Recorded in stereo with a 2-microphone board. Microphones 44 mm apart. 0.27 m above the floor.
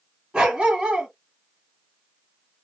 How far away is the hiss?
No hiss in this recording.